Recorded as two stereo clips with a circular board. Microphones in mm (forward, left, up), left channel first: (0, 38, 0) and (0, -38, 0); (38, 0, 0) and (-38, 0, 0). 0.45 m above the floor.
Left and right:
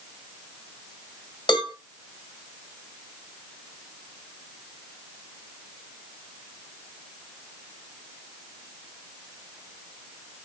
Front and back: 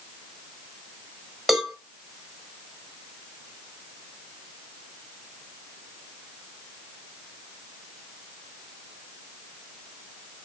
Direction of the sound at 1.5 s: 95° left.